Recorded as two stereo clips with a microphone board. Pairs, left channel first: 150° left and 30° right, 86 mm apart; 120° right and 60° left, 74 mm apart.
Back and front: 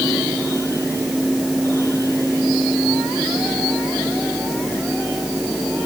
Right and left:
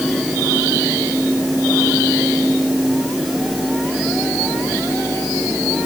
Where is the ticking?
No ticking in this recording.